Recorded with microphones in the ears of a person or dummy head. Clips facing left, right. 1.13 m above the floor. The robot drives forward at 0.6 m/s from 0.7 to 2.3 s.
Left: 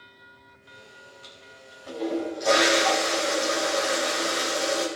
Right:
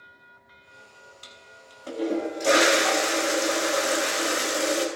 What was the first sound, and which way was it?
A toilet flushing, 55° right (ahead or behind).